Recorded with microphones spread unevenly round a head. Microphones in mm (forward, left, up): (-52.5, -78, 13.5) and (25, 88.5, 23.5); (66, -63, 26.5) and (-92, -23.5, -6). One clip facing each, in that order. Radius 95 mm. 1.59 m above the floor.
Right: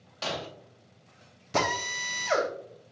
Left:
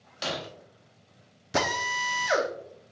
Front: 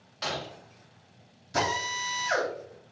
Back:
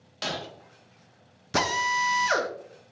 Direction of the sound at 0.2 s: 120° left.